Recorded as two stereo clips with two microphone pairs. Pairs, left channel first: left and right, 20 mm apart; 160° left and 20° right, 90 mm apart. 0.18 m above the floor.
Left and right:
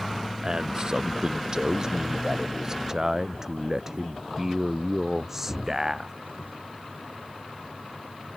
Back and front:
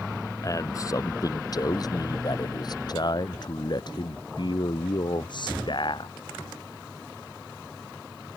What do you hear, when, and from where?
0.4 s a man speaking: 145° right; by 6.1 s 170° right